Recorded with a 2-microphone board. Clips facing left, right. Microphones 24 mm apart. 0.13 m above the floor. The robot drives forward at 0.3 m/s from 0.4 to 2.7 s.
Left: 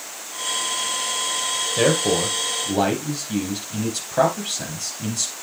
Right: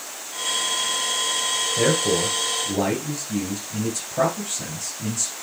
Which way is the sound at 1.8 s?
65° left (ahead or behind).